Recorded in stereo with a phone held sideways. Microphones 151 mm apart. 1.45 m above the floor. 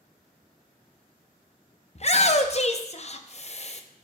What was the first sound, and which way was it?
A shout, 45° left (ahead or behind).